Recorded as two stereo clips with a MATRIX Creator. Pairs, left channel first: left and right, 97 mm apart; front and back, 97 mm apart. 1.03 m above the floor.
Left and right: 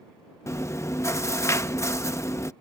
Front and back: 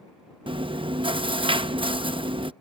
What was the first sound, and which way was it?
Chewing, 150° left.